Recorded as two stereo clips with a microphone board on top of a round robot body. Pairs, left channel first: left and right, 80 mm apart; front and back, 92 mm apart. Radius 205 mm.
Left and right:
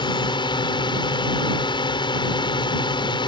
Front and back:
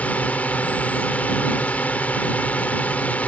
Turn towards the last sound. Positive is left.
turn(degrees=75)